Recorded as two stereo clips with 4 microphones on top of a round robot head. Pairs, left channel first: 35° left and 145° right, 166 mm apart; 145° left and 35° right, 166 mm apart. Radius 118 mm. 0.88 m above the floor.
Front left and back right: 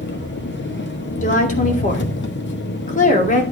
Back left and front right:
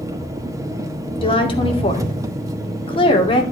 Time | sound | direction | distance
0.0 | an engine running | 35° left | 1.4 m
1.2 | a woman speaking | 85° left | 2.5 m